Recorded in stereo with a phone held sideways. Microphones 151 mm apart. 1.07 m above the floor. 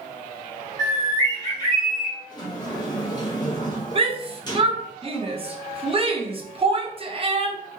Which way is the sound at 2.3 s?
25° left (ahead or behind).